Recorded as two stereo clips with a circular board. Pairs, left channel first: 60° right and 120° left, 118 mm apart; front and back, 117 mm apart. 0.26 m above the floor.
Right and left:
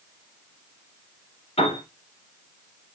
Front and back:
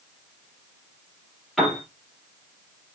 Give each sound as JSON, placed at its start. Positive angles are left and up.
{"t": 1.6, "sound": "a piano", "azimuth_deg": -90, "distance_m": 5.0}